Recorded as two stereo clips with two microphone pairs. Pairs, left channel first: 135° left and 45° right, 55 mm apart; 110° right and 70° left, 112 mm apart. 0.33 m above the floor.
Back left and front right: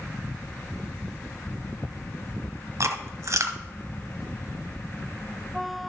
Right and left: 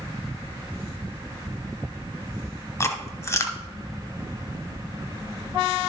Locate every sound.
2.8 s chewing: 45° right, 0.9 m